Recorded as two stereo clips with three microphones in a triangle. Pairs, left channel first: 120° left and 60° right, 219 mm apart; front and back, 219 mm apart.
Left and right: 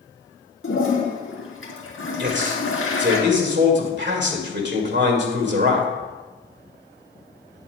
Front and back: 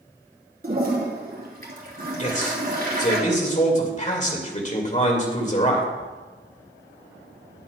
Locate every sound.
0.6 s a toilet flushing: 135° left, 3 m
2.2 s a man speaking: 50° right, 2.5 m